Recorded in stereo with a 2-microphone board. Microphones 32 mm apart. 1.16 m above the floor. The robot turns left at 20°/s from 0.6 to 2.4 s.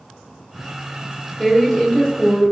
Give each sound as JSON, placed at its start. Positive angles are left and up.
{"t": 1.4, "sound": "a woman speaking", "side_deg": 15, "distance_m": 1.5}